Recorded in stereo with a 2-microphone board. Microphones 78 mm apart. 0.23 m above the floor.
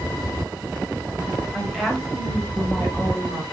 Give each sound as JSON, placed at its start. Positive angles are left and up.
{"t": 1.5, "sound": "a woman speaking", "side_deg": -10, "distance_m": 1.0}